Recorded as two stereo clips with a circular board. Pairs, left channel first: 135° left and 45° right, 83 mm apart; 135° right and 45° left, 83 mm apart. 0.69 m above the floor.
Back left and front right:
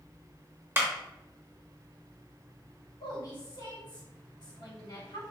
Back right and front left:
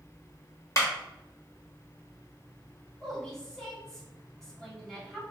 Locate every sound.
0.8 s a clap: 100° right, 0.8 m
3.0 s a woman speaking: 145° left, 1.2 m